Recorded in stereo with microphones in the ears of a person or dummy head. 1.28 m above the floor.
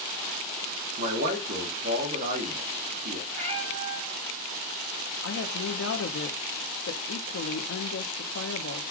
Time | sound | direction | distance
1.0 | a man speaking | 45° right (ahead or behind) | 1.2 m
3.3 | a cat meowing | 40° right (ahead or behind) | 3 m
5.2 | a woman speaking | 75° left (ahead or behind) | 1.1 m